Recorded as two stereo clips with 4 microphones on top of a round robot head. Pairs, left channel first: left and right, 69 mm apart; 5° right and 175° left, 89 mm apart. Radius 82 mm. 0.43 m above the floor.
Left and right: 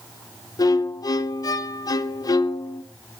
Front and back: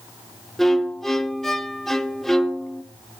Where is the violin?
80° left, 0.5 m.